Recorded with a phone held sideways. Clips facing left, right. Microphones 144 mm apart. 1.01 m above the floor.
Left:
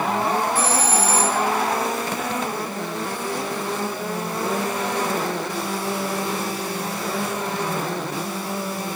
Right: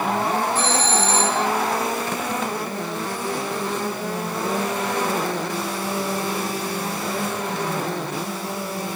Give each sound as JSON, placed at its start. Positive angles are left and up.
{"t": 0.6, "sound": "a doorbell", "side_deg": 10}